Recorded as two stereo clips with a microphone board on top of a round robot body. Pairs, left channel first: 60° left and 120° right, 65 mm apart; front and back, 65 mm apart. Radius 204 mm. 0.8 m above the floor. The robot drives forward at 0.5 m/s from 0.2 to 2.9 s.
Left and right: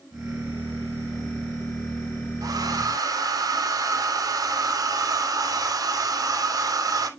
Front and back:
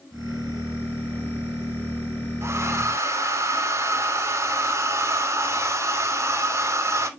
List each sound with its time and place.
2.4 s a hair dryer: 130° right, 2.5 m; by 7.1 s 135° right, 2.5 m